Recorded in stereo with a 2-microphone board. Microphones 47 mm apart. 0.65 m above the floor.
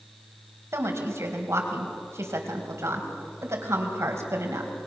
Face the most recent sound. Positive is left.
turn(degrees=-75)  # may be behind; listen again after turning